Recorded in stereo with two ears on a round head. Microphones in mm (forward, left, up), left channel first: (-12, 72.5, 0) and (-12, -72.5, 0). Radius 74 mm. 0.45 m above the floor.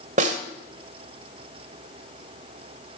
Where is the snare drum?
50° right (ahead or behind), 1.6 m.